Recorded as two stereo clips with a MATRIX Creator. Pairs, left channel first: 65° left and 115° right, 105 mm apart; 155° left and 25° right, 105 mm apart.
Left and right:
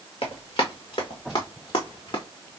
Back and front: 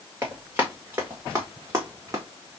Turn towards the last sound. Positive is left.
turn(degrees=30)